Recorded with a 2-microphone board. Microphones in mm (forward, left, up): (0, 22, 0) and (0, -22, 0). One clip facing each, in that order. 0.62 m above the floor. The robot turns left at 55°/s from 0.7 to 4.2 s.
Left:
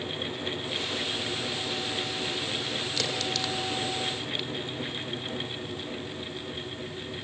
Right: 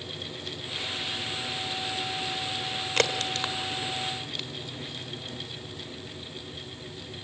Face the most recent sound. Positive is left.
turn(degrees=5)  # may be behind; listen again after turning